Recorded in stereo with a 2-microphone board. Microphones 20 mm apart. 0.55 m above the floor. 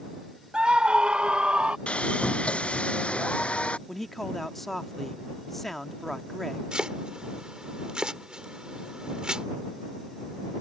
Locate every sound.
0.5 s a scream: 60° right (ahead or behind)
1.9 s sawing: 70° left (ahead or behind)
3.9 s a man speaking: 10° left (ahead or behind)
6.7 s chopping: 40° right (ahead or behind)